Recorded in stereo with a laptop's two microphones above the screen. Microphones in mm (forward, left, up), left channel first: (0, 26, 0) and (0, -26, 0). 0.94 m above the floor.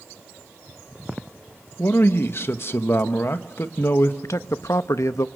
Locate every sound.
1.8 s a man speaking: 50° left (ahead or behind), 1.1 m
4.2 s a man speaking: 70° left (ahead or behind), 0.8 m